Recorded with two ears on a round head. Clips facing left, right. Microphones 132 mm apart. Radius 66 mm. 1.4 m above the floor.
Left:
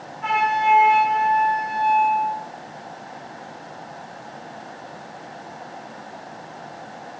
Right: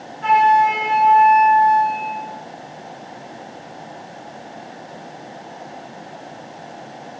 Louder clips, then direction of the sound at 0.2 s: Right 6 dB; 30° right (ahead or behind).